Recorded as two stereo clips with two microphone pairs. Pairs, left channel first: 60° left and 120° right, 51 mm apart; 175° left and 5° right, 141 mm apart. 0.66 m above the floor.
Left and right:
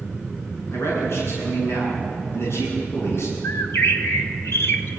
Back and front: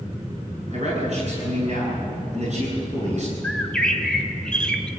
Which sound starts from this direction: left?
A bird, at 3.4 s.